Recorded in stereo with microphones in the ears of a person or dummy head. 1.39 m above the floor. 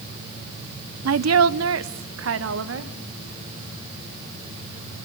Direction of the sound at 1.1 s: 70° right (ahead or behind).